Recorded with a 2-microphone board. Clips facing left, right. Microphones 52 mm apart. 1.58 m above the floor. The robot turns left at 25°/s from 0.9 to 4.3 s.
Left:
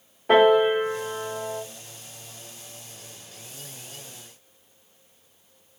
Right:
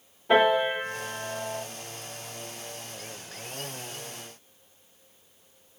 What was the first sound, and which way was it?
A piano, 60° left (ahead or behind).